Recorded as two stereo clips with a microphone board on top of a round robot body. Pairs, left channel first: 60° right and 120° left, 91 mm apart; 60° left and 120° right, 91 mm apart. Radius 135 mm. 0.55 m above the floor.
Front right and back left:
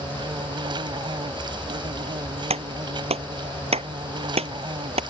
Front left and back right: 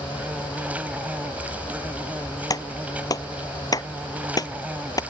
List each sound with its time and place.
0.0 s an insect: 165° left
2.5 s a clap: 110° left